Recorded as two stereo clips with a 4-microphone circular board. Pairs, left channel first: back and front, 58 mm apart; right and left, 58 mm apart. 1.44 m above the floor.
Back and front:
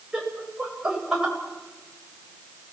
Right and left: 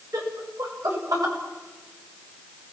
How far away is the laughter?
About 8.5 m.